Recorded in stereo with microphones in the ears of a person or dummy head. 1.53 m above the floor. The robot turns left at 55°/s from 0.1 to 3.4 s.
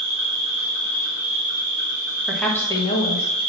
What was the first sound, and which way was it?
An insect, 150° right.